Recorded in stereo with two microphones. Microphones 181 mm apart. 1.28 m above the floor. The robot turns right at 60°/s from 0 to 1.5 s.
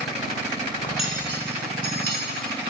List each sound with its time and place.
0.8 s cutlery clinking: 25° left (ahead or behind), 3 m; by 2.2 s 65° left (ahead or behind), 3 m